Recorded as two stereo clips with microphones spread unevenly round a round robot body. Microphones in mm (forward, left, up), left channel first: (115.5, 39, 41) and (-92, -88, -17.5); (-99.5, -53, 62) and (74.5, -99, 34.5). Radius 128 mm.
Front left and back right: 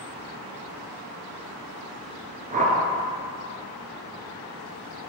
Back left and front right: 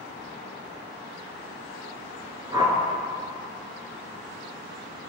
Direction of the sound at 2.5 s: 85° right.